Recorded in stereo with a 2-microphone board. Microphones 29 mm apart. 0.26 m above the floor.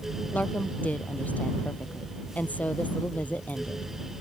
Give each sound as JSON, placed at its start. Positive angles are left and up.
{"t": 0.3, "sound": "a woman speaking", "side_deg": 75}